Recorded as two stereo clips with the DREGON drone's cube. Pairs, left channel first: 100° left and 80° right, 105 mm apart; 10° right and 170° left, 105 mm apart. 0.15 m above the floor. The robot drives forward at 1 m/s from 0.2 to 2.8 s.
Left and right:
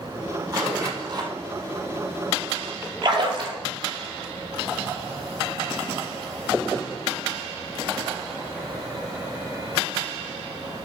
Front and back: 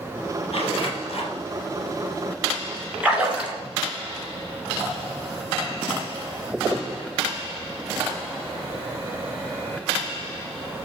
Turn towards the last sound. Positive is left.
turn(degrees=-115)